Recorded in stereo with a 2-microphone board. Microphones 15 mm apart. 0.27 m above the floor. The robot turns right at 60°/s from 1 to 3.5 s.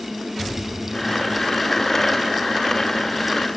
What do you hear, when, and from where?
Only background noise.